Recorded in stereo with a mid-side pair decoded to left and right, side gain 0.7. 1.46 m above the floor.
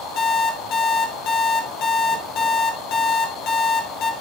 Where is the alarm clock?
55° left, 3 m.